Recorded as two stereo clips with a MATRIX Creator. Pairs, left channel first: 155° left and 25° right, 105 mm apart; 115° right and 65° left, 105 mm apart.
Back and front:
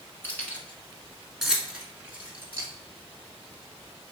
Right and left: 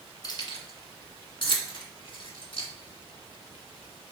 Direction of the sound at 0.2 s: 140° right.